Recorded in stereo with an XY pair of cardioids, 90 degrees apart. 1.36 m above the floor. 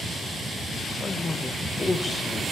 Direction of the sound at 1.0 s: 30° left.